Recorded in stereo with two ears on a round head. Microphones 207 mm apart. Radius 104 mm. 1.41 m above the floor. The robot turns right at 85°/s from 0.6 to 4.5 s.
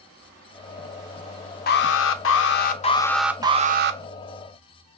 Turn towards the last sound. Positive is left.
turn(degrees=-70)